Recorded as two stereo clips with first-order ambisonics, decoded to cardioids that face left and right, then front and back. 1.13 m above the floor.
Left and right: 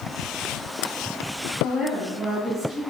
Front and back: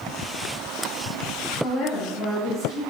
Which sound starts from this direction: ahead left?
A woman speaking, at 1.6 s.